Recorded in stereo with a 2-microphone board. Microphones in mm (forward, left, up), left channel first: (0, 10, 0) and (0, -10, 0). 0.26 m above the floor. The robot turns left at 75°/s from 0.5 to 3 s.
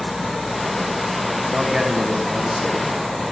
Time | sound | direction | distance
1.5 | a man speaking | 70° right | 2.0 m